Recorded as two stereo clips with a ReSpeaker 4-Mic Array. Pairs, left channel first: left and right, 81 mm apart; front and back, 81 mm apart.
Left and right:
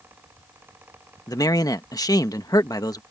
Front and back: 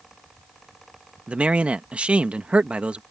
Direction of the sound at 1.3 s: 110° left.